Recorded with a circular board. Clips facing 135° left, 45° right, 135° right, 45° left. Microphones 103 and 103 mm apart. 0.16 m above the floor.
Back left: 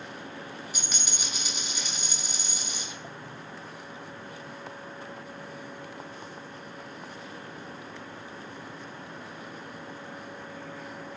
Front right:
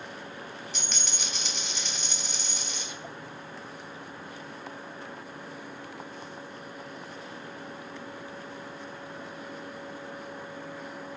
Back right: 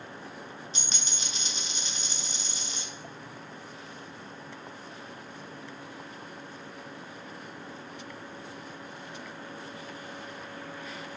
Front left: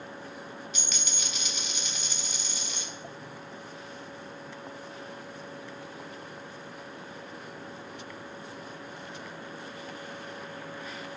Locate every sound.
0.7 s a dropped coin: 155° right, 0.6 m